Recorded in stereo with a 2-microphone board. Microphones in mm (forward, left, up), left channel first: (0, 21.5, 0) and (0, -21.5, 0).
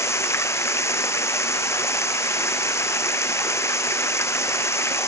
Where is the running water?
90° left.